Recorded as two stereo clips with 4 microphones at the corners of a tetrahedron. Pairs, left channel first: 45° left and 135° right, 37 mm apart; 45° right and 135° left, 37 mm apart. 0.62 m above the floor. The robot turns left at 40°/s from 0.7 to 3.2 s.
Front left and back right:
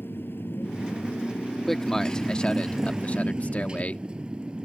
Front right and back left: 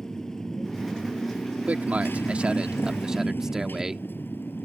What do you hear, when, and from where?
0.0 s a motorcycle: 30° left; by 4.7 s 70° right
1.7 s a man speaking: 125° left; by 4.0 s 65° left